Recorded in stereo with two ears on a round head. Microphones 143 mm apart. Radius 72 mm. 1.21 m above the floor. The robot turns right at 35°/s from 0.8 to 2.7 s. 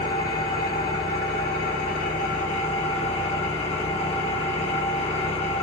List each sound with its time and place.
0.0 s an engine running: 65° left, 1.2 m; by 5.6 s 135° left, 1.2 m